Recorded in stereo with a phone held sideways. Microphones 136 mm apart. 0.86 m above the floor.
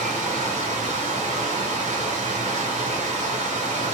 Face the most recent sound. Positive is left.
turn(degrees=-65)  # may be behind; listen again after turning